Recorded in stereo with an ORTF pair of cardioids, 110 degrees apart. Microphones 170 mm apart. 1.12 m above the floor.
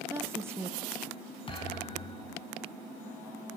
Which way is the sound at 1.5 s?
30° left.